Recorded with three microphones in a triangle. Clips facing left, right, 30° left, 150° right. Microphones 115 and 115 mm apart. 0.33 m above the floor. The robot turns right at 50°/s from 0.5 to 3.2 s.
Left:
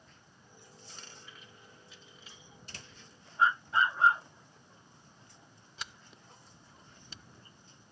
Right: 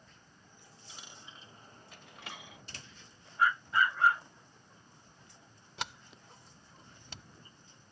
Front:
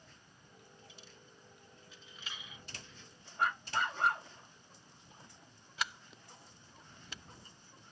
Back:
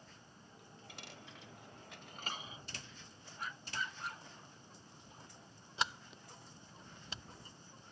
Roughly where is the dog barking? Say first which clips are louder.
Left 1 dB, front 10 dB; ahead left.